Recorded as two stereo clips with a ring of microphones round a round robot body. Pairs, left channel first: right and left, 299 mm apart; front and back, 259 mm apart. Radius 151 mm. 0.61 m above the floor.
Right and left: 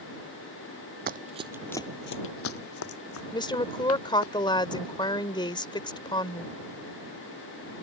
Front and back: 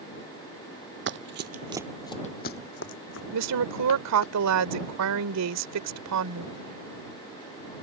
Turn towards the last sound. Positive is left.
turn(degrees=-165)